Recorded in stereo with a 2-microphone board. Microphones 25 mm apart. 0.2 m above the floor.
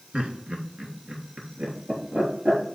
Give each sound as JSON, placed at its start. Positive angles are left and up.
{"t": 0.1, "sound": "laughter", "side_deg": -50, "distance_m": 2.5}